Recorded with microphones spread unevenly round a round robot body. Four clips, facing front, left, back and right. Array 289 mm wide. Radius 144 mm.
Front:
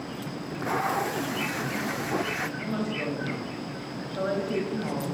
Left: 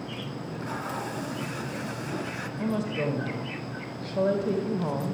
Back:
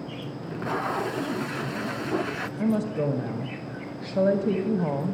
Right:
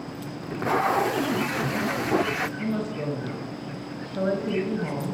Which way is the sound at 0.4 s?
105° right.